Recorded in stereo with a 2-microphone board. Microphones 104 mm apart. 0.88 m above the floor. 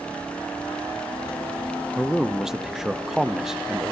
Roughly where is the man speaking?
Centre.